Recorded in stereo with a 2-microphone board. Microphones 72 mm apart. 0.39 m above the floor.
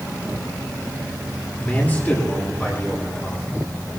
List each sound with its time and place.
1.6 s a man speaking: 25° left (ahead or behind), 8 m; by 3.7 s 35° left (ahead or behind), 8.5 m